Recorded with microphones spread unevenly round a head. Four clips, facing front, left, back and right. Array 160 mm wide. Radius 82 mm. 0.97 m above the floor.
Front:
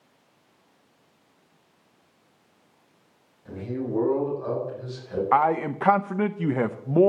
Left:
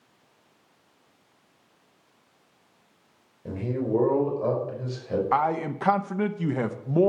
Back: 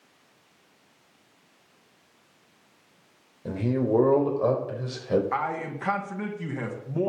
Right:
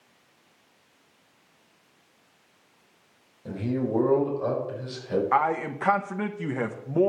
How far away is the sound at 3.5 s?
About 5 m.